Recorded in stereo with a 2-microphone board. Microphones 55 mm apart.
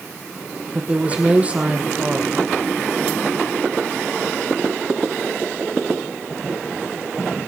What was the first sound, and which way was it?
A woman speaking, 25° right (ahead or behind).